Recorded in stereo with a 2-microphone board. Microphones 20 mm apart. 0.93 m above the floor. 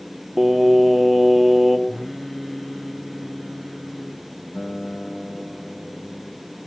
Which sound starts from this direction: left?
A guitar, at 4.5 s.